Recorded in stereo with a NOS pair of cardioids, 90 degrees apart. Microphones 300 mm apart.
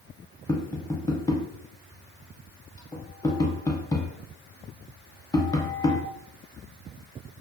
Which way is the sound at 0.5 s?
10° left.